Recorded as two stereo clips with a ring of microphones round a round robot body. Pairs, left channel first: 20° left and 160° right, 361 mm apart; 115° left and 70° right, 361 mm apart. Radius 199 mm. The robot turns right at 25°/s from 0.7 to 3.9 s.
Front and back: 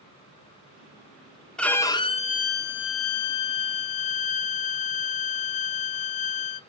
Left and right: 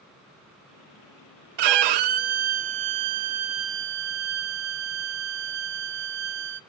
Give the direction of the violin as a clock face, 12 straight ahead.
2 o'clock.